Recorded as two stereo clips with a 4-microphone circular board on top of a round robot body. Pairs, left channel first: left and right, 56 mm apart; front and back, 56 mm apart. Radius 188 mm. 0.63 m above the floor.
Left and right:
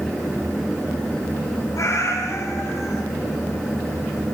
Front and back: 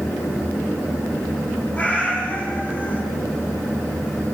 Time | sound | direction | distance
1.8 | a cat meowing | 65° left | 9 m